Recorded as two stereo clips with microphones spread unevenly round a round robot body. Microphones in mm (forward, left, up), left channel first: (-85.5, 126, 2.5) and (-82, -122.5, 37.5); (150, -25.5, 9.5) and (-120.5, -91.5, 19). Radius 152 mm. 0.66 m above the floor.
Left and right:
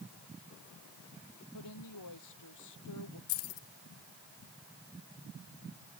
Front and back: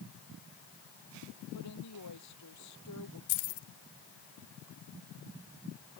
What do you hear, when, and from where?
1.5 s a woman speaking: 60° left
3.3 s keys jangling: 50° left